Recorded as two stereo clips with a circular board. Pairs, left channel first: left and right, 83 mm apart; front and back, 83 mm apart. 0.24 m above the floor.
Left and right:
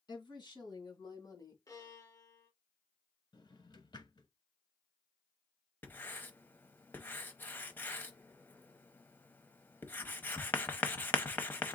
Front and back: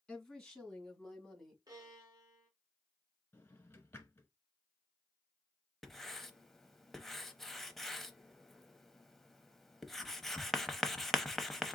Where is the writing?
80° left, 0.7 m.